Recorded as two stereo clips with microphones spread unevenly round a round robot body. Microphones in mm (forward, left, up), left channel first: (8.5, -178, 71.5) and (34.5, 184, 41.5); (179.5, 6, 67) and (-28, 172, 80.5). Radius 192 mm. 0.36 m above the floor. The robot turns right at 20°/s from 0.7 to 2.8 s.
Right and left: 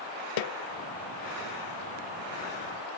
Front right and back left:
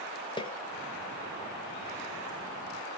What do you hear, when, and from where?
0.4 s a snare drum: 110° right, 0.9 m